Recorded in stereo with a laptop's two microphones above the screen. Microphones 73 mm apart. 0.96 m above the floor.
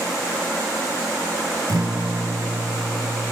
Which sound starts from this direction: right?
A guitar, at 1.7 s.